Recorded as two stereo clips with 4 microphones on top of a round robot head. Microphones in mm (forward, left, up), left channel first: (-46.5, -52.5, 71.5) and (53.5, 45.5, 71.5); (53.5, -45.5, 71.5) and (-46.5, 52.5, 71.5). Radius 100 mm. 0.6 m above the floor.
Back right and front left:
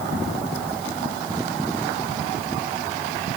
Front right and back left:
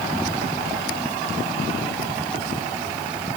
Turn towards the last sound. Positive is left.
No sound to turn to.